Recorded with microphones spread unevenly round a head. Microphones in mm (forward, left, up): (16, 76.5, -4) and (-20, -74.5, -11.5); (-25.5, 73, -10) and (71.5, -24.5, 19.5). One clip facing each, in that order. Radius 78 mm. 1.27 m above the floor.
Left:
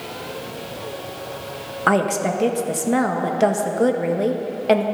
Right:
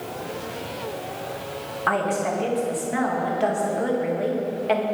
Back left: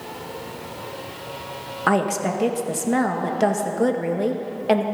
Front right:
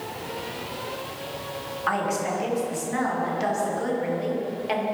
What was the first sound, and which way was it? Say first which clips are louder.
A woman speaking: left 4 dB, back left 5 dB; 115° left.